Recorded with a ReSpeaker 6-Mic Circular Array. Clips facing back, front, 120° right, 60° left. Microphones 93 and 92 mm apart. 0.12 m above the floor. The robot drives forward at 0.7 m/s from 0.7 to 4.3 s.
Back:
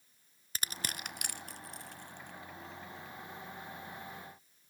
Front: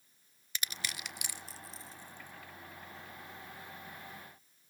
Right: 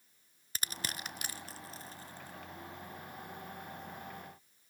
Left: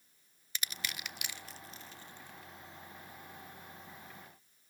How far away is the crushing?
About 0.7 m.